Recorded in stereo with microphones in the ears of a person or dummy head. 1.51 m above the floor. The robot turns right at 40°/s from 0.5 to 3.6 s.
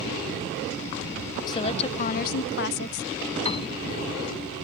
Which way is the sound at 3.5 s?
30° left (ahead or behind).